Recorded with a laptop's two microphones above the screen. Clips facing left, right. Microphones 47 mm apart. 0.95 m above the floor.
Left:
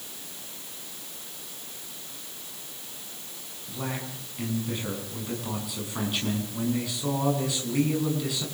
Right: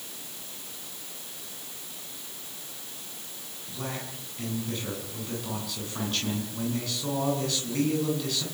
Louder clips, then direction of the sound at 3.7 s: Left 2 dB; 15° left (ahead or behind).